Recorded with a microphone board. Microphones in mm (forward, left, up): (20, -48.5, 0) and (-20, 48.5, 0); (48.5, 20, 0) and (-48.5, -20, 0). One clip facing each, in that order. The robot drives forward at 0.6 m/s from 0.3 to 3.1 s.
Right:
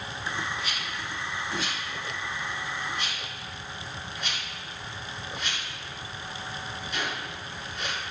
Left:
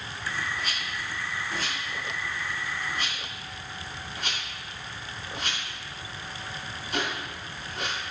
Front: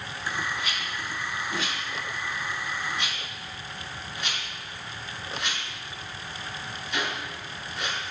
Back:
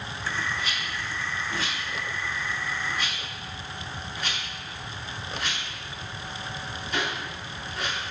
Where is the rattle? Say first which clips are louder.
Even, even; 150° left, 4.5 m; by 8.0 s 160° left, 6 m.